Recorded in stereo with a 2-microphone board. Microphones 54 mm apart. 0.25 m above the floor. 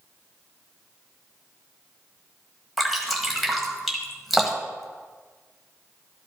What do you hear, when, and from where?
2.8 s dripping: centre (ahead or behind), 1.7 m